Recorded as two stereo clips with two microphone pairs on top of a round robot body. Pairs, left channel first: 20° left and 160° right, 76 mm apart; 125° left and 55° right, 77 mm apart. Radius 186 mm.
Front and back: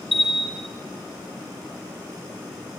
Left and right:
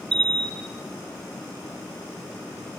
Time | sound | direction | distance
0.1 | a bell | 70° right | 3 m